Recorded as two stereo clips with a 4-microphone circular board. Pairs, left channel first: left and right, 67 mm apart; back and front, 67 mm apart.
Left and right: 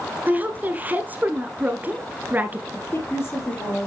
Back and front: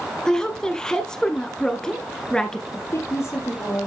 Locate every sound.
0.3 s a woman speaking: 110° right, 1.1 m
2.7 s a woman speaking: 140° left, 4.5 m